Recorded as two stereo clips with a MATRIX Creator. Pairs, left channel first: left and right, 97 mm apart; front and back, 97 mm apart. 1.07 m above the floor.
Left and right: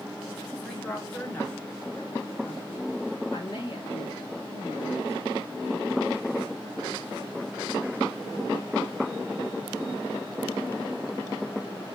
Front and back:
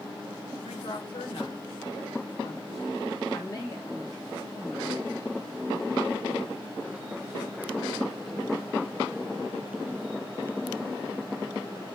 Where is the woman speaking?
15° left, 3 m; by 5.5 s 75° left, 3 m.